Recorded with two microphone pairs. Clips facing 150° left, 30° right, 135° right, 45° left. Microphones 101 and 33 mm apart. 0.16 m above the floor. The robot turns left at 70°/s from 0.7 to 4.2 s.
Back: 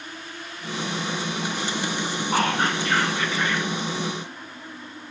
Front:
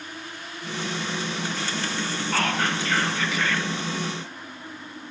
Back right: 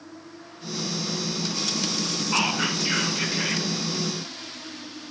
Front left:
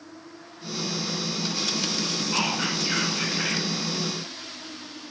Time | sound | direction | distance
2.3 | whispering | 175° right | 1.8 m